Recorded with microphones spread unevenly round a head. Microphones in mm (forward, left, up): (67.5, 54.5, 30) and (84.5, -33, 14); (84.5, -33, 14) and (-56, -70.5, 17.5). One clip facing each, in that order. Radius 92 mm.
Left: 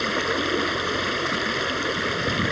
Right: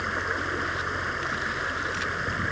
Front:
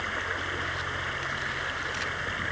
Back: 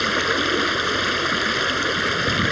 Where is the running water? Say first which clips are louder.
Left 5 dB, back 13 dB; 155° left.